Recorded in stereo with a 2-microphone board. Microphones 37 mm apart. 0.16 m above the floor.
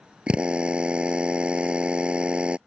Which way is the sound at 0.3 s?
30° right (ahead or behind).